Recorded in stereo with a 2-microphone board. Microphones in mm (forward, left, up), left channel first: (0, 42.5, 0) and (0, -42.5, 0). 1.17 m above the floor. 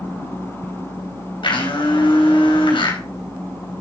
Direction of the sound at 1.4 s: 80° left.